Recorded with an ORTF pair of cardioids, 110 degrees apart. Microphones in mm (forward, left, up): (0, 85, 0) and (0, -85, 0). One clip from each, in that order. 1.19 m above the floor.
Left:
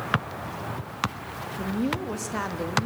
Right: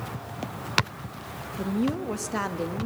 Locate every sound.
1.6 s a woman speaking: 10° right, 1.4 m